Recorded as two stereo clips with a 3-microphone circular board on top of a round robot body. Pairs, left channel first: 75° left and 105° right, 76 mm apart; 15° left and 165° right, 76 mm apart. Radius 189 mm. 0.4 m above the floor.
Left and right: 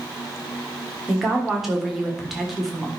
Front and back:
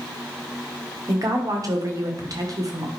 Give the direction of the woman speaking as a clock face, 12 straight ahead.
6 o'clock.